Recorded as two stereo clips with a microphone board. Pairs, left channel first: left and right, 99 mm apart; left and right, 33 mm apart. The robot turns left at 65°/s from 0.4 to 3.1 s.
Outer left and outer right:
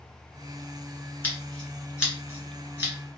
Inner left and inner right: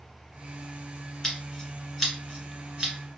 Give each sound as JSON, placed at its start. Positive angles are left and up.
{"t": 1.2, "sound": "scissors", "side_deg": 20, "distance_m": 1.8}